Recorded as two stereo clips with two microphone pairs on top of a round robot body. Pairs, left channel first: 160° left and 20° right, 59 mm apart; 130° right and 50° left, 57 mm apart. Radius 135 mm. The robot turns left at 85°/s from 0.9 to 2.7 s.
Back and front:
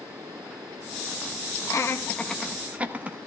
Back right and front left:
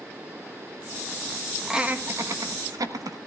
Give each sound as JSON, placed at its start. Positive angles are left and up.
{"t": 1.7, "sound": "laughter", "azimuth_deg": 130, "distance_m": 1.2}